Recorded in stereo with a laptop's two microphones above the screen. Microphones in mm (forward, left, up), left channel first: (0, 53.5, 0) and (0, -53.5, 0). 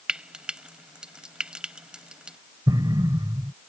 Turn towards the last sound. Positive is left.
turn(degrees=-40)  # may be behind; listen again after turning